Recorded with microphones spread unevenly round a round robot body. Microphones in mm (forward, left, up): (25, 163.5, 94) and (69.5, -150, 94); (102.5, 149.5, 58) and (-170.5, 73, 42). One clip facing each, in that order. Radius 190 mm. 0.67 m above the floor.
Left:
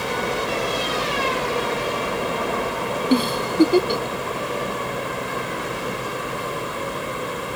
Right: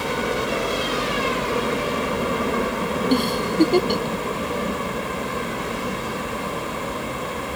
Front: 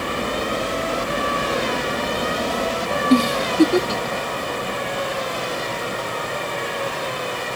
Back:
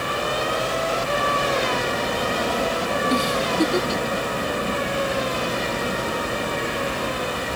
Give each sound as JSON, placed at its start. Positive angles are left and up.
{"t": 0.0, "sound": "a helicopter", "azimuth_deg": -20}
{"t": 3.1, "sound": "a giggle", "azimuth_deg": 15}